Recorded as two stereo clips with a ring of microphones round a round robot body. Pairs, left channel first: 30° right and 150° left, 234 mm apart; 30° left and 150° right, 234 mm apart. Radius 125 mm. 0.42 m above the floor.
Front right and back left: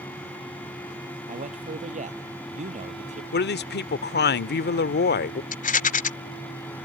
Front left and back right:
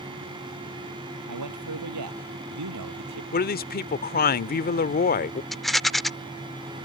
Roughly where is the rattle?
Ahead right.